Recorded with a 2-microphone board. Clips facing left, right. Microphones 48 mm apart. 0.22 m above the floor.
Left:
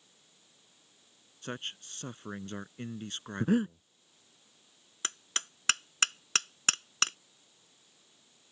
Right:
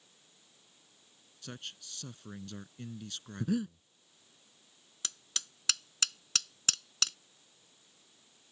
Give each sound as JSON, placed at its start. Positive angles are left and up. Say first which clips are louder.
{"t": 1.4, "sound": "a man speaking", "louder": "left 6 dB", "side_deg": 40}
{"t": 3.4, "sound": "breathing", "louder": "left 5 dB", "side_deg": 45}
{"t": 5.0, "sound": "hammering", "louder": "left 6 dB", "side_deg": 40}